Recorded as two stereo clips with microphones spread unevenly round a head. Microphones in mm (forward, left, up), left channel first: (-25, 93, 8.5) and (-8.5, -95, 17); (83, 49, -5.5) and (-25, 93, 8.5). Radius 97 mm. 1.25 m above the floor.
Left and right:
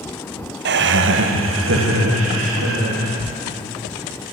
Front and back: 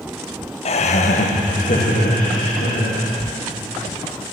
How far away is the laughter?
About 0.8 m.